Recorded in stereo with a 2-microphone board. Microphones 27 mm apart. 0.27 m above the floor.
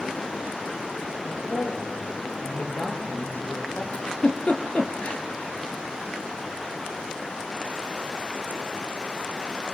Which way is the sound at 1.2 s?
75° left (ahead or behind).